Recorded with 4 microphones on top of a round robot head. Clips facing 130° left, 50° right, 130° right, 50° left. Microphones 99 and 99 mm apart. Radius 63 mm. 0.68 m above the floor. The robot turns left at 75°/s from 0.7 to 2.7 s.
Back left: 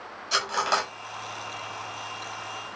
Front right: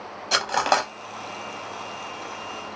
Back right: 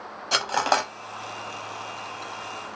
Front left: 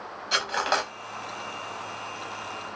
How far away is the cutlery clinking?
About 0.7 m.